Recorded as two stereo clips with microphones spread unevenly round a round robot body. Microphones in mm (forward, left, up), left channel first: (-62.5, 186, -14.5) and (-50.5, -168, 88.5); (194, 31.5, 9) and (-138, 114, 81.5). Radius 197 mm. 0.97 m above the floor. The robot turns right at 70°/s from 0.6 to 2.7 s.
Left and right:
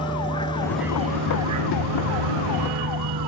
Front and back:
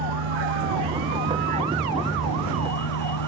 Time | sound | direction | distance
0.0 | a vehicle | 170° left | ?